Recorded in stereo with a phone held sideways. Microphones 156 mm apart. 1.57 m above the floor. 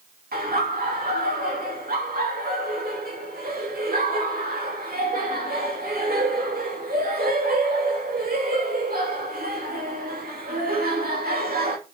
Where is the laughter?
75° right (ahead or behind), 2.5 m.